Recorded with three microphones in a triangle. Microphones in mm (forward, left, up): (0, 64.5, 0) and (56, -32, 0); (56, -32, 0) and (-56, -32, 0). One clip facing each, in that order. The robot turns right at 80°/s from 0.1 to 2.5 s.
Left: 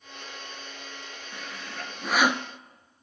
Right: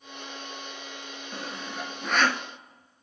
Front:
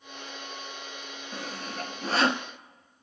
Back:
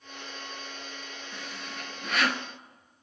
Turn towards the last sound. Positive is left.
turn(degrees=70)